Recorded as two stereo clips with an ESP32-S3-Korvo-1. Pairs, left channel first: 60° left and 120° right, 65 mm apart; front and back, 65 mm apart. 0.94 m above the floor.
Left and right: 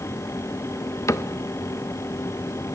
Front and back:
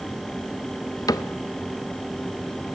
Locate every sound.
1.1 s a cupboard door: 20° left, 0.8 m